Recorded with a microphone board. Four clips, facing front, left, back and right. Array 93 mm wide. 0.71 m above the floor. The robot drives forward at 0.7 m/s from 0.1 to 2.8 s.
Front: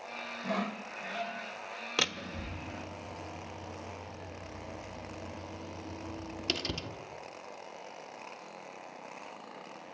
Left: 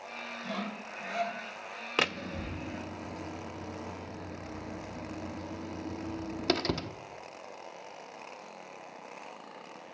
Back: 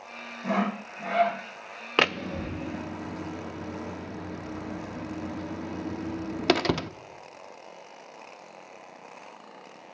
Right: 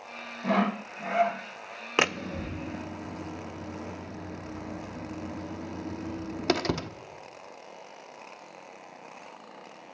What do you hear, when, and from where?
0.4 s sawing: 110° right, 0.6 m; by 1.4 s 155° right, 1.0 m
2.0 s a door slam: 160° right, 0.5 m; by 6.9 s 170° right, 1.0 m